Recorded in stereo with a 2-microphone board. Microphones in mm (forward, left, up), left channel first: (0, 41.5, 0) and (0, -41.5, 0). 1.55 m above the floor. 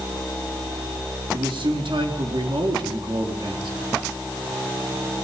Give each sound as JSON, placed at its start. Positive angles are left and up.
{"t": 1.3, "sound": "a man speaking", "side_deg": -75, "distance_m": 4.5}